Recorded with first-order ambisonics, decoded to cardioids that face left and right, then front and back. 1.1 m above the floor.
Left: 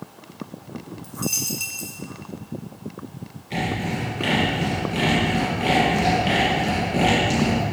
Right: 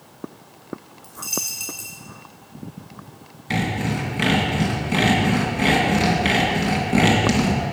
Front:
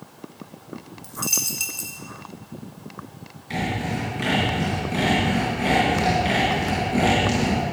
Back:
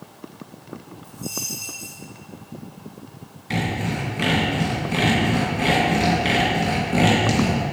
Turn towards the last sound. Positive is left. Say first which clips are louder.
# right 2 dB, back 1 dB
turn(degrees=-110)